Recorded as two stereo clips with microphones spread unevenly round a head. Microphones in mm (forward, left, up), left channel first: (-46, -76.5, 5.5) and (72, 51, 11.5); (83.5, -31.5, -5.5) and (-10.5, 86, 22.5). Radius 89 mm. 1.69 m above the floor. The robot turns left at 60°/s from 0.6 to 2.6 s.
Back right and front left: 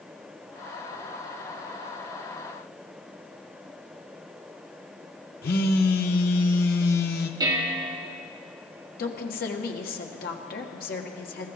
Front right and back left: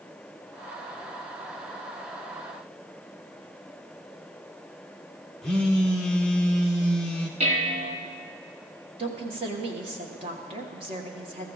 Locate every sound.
5.4 s a phone buzzing: 145° right, 0.9 m
7.4 s dishes clattering: 110° left, 1.5 m
9.0 s a woman speaking: 175° right, 1.5 m